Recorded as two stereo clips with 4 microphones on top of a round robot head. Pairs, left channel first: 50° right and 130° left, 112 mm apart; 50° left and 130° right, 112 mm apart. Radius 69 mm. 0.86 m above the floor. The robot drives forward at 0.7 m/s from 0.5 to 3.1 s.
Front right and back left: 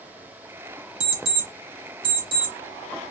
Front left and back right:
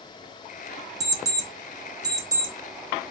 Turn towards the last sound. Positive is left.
turn(degrees=175)